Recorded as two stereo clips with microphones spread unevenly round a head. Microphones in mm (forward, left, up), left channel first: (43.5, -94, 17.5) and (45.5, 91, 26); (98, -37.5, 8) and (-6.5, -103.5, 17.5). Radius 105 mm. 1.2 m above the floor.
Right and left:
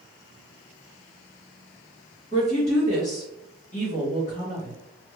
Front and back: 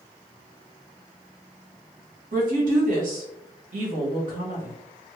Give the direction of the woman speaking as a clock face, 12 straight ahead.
5 o'clock.